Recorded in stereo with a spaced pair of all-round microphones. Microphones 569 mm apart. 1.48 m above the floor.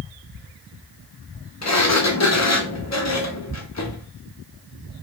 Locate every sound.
1.6 s a sliding door: 30° left (ahead or behind), 0.6 m